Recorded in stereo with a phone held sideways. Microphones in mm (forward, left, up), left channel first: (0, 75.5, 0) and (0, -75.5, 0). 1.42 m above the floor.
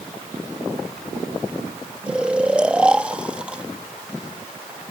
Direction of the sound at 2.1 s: 5° right (ahead or behind).